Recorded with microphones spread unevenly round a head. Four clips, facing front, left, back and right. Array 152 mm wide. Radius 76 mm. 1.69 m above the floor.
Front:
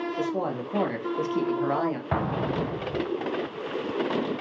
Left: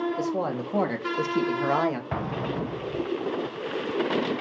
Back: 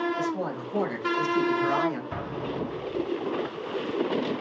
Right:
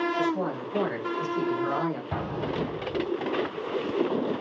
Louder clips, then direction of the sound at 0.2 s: Even, front 1 dB; 55° left.